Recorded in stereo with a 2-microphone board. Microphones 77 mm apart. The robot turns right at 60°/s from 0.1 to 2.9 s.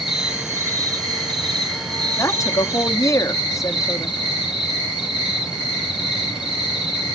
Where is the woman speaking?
60° left, 0.6 m; by 4.2 s 105° left, 0.6 m.